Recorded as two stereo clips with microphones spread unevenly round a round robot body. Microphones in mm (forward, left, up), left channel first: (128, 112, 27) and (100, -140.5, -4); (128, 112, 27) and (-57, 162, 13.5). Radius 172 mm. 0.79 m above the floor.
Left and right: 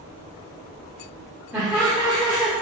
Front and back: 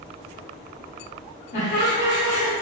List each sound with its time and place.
1.5 s laughter: 20° right, 0.9 m